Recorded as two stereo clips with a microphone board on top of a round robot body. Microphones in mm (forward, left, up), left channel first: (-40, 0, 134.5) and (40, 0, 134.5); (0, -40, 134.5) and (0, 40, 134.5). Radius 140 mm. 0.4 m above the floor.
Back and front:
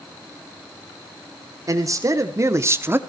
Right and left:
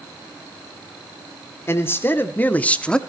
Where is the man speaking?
35° right, 1.6 m; by 3.0 s 20° right, 1.1 m.